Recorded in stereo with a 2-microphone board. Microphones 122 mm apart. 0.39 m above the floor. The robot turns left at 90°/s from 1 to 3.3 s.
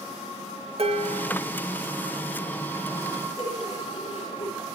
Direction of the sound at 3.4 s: 60° left (ahead or behind).